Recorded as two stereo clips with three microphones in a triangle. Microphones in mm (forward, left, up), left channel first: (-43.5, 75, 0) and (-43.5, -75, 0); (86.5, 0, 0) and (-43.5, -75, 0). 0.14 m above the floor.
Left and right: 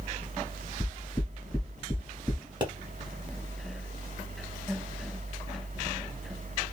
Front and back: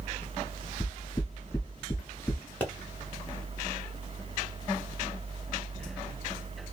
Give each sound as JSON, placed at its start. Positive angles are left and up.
{"t": 0.8, "sound": "knocking", "azimuth_deg": -20, "distance_m": 1.3}
{"t": 2.6, "sound": "a pop", "azimuth_deg": -45, "distance_m": 1.2}